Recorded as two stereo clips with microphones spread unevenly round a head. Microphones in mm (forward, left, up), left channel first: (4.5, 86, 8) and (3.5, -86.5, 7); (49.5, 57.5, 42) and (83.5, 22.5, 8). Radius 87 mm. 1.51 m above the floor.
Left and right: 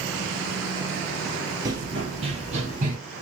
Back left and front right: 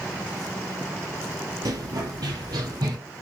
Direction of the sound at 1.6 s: 25° right.